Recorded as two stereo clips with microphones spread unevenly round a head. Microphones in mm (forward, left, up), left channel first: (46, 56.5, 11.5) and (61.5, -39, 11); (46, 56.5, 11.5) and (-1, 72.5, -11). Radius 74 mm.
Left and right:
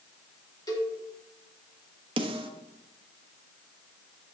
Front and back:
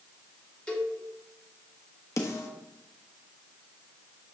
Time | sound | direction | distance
0.7 | a cowbell | 50° left | 3 m
2.2 | a snare drum | 45° right | 1.1 m